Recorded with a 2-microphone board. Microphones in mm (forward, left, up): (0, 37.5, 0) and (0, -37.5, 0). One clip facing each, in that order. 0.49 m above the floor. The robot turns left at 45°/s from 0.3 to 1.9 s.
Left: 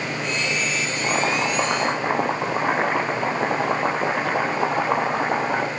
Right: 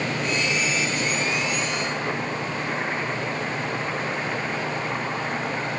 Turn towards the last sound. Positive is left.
turn(degrees=85)